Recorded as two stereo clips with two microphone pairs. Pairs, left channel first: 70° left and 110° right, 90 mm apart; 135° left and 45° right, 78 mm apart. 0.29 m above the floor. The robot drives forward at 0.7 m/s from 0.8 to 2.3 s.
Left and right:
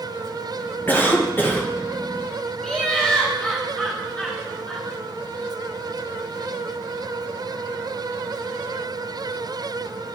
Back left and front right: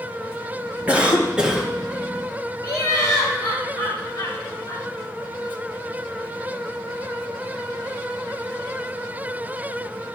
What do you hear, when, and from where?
0.9 s a cough: 15° left, 1.5 m; by 1.7 s 35° left, 1.1 m
2.6 s laughter: 155° left, 1.6 m